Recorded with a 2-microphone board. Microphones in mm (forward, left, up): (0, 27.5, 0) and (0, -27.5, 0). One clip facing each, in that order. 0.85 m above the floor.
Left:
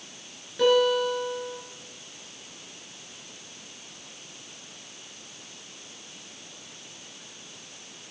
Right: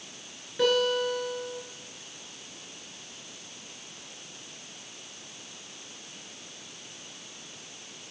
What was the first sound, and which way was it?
A guitar, 10° right (ahead or behind).